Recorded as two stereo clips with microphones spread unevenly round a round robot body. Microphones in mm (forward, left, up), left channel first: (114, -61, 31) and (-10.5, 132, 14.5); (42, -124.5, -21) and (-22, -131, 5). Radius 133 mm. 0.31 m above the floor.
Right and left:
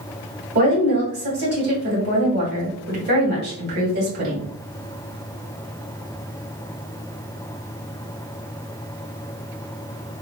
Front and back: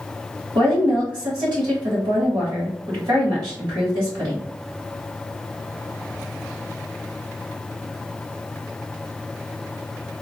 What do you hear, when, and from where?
0.6 s a woman speaking: 150° left, 1.8 m